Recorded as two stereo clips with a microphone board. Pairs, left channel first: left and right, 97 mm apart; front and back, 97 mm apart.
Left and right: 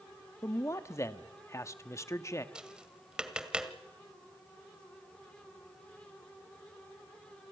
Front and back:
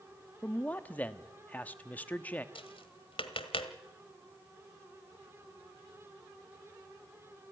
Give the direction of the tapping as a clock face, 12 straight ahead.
12 o'clock.